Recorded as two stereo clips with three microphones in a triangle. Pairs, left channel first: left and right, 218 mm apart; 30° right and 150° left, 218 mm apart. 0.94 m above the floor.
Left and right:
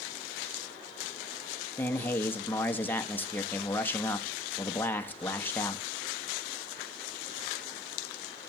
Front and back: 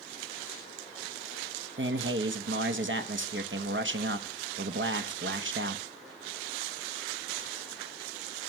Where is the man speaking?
170° left, 1.2 m.